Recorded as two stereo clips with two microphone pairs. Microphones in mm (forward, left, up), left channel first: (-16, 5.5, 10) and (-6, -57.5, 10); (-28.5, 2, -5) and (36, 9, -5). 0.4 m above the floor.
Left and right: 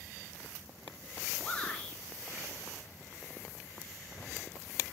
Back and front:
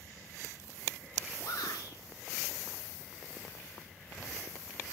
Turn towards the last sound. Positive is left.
turn(degrees=170)